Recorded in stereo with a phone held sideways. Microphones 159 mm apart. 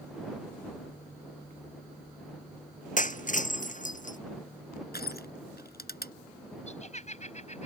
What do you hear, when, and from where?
3.0 s breaking glass: 55° left (ahead or behind)
4.9 s crushing: 85° left
6.7 s laughter: 45° left (ahead or behind)